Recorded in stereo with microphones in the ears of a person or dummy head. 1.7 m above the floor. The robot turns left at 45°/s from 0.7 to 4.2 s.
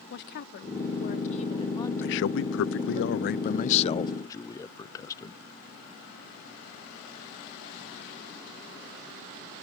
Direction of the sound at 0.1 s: 75° left.